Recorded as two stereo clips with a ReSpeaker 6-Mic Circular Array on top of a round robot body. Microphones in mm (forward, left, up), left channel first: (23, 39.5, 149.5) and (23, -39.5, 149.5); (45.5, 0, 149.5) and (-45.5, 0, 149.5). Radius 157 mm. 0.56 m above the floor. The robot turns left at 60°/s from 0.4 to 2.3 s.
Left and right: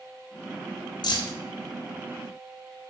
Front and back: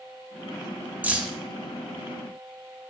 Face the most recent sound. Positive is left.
turn(degrees=35)